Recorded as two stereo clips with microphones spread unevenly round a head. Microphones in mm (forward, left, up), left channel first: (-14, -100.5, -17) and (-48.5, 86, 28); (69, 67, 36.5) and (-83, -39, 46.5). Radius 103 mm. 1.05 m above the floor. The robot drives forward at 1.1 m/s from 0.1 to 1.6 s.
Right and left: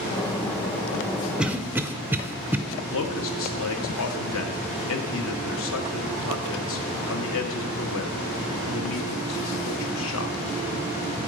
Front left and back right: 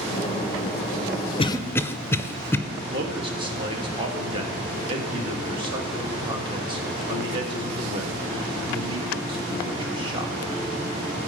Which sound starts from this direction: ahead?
A cough, at 1.4 s.